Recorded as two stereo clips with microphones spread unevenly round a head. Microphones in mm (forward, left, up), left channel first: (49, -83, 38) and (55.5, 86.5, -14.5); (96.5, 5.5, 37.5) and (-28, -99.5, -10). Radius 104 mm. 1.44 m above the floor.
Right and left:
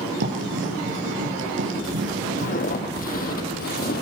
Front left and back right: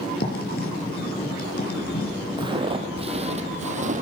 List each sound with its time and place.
0.2 s writing: 80° left, 6 m
2.4 s footsteps: 70° right, 3.5 m; by 4.0 s 95° right, 3.5 m